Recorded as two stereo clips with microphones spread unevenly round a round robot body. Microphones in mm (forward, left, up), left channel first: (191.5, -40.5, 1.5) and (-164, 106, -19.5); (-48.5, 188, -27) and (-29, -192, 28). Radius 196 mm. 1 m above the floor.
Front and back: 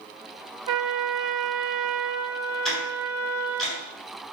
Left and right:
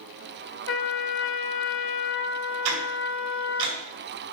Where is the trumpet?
145° left, 0.9 m.